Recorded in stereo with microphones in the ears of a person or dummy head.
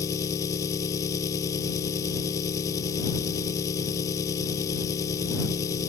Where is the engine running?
25° left (ahead or behind).